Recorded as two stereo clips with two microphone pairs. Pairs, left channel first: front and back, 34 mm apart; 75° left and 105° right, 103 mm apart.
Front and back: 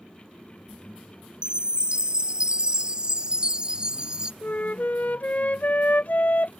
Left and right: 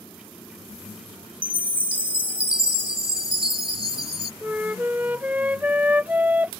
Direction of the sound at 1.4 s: 120° right.